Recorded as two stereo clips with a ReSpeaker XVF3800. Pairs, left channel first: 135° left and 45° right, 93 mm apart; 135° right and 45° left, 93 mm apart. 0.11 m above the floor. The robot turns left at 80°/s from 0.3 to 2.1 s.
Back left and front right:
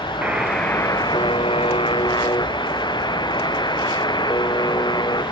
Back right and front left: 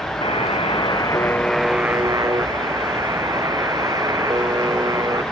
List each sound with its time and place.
0.2 s a buzzer: 120° right; by 5.2 s 95° left